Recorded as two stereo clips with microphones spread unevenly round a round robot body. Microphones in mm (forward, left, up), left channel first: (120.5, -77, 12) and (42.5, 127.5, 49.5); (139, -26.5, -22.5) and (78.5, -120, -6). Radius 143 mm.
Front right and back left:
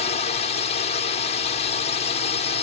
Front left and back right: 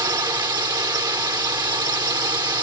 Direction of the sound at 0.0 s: 90° right.